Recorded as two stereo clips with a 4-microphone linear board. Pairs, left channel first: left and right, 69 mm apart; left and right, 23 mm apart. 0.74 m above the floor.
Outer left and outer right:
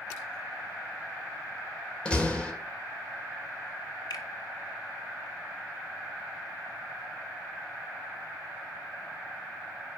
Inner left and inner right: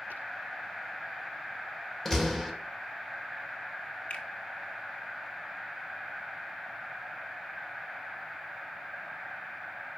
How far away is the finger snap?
About 1.6 m.